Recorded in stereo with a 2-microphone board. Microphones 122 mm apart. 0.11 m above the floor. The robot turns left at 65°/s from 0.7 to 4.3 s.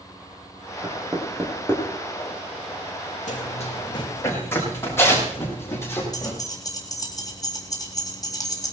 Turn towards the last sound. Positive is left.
turn(degrees=30)  # may be behind; listen again after turning